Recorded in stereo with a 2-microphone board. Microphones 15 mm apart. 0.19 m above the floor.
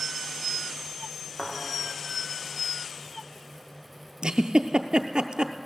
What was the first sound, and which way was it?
A thud, 70° left (ahead or behind).